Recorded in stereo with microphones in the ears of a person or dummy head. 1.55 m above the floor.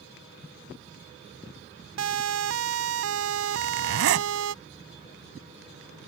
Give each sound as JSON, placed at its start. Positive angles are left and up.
{"t": 2.0, "sound": "a siren", "side_deg": -80}
{"t": 3.5, "sound": "a zipper", "side_deg": -65}